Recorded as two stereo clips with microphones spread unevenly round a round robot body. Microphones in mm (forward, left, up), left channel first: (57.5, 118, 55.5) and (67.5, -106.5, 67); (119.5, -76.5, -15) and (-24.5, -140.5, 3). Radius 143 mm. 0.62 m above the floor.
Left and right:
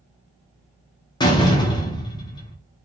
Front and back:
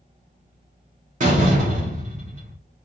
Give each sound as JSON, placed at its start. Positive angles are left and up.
{"t": 1.2, "sound": "a door slam", "azimuth_deg": 155, "distance_m": 0.7}